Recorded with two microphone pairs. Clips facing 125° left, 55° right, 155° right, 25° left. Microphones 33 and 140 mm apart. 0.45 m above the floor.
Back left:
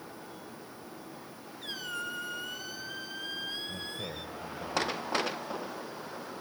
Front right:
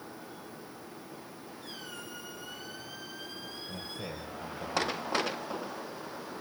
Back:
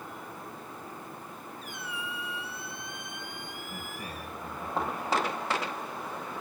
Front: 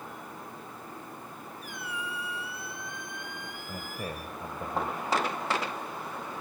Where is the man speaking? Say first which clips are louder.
Back left 1 dB, front 6 dB; 40° left, 2.5 m.